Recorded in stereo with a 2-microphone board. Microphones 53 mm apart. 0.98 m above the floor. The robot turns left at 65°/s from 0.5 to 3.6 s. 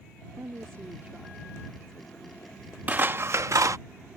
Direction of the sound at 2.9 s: 30° right.